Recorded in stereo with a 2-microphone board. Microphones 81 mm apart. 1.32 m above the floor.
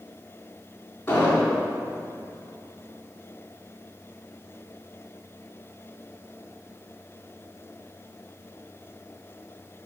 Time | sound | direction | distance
1.1 | an explosion | 35° left (ahead or behind) | 3.5 m